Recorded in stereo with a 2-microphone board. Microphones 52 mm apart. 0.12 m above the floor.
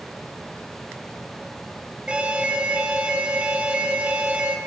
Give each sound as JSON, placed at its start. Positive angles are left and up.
{"t": 2.1, "sound": "an alarm", "side_deg": -25, "distance_m": 1.9}